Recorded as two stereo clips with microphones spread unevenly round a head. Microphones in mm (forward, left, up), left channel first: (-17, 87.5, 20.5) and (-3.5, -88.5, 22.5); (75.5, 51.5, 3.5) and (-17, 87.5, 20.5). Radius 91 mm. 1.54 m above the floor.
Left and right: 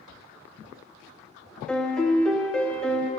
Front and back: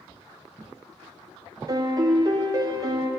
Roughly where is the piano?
Behind.